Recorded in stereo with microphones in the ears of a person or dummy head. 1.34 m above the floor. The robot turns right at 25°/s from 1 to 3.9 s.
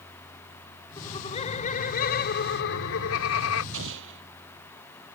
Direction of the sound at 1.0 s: 30° left.